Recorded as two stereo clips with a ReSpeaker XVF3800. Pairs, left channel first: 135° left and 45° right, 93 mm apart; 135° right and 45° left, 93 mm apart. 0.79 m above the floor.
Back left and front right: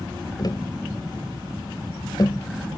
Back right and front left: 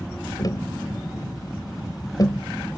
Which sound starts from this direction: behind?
Tapping, at 0.4 s.